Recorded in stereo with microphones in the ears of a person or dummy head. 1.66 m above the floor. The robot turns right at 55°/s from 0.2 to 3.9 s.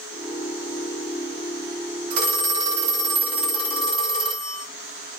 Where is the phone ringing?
75° right, 2 m; by 4.6 s 25° left, 2 m.